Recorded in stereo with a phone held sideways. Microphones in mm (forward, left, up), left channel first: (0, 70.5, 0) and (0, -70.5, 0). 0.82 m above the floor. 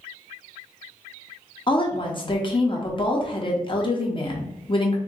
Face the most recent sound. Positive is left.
turn(degrees=35)  # may be behind; listen again after turning